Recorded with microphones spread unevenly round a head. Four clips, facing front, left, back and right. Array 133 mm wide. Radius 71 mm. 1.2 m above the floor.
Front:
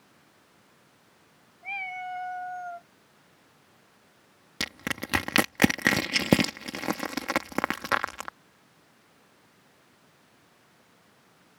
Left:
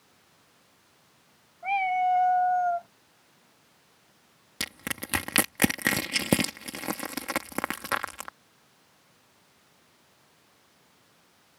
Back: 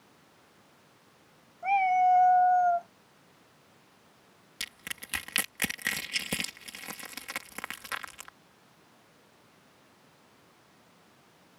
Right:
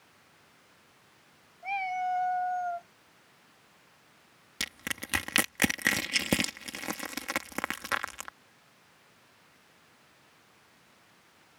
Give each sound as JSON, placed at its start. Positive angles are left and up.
{"t": 1.6, "sound": "a cat meowing", "azimuth_deg": 155}
{"t": 4.6, "sound": "crushing", "azimuth_deg": 20}